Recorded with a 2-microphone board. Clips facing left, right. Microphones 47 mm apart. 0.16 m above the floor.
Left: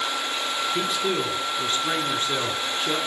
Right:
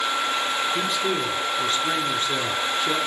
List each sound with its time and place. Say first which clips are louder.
0.7 s a man speaking: right 1 dB; 5° left (ahead or behind), 1.8 m